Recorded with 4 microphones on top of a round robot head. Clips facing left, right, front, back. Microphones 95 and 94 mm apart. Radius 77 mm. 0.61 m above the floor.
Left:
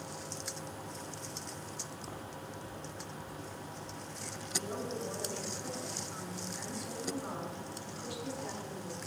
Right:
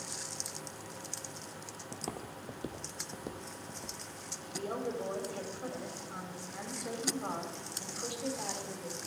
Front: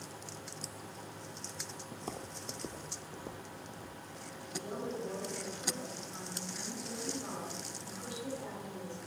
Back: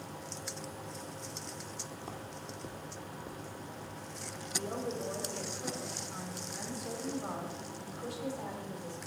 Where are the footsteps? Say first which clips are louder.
Right 2 dB, front 4 dB; 55° right, 0.8 m; by 4.0 s 80° right, 1.7 m.